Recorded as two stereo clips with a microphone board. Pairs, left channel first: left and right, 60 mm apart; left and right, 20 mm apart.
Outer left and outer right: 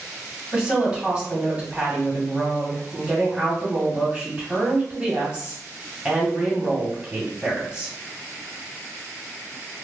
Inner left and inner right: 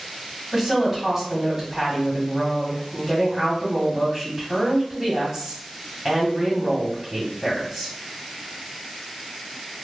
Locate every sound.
0.5 s a woman speaking: 20° right (ahead or behind), 1.3 m